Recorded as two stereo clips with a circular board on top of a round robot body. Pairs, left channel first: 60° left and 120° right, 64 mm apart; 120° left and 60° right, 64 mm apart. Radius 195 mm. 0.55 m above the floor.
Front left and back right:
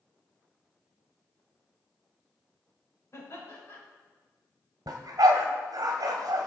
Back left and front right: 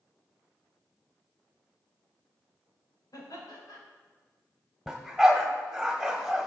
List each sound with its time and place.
3.1 s laughter: 105° left, 4 m
4.9 s a dog barking: 150° right, 1.5 m